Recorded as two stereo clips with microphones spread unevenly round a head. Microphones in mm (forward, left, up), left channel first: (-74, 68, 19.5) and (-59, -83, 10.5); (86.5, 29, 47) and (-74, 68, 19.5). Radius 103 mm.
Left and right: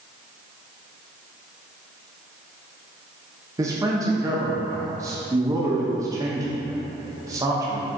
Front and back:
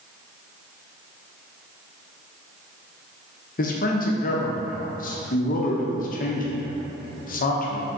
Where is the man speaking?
30° right, 1.0 m.